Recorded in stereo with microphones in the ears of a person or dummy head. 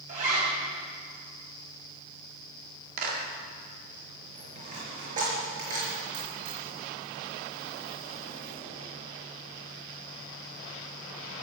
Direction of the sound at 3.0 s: 55° right (ahead or behind).